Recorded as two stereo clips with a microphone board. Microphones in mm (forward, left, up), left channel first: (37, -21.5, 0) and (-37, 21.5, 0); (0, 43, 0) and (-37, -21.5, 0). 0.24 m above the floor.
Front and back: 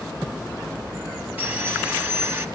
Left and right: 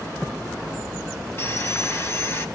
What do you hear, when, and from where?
1.4 s sawing: 95° left, 1.6 m